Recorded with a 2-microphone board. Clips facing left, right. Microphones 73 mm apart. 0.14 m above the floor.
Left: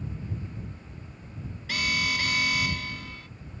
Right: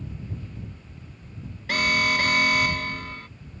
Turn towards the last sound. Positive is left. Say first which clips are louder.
# right 6 dB
turn(degrees=-50)  # may be behind; listen again after turning